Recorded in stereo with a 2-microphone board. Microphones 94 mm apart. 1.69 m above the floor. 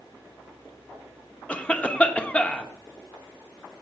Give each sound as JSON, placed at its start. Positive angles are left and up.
{"t": 1.5, "sound": "a cough", "side_deg": 15, "distance_m": 0.9}